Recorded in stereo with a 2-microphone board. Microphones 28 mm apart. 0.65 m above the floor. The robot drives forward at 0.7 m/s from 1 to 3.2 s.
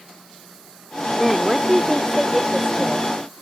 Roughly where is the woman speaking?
Centre.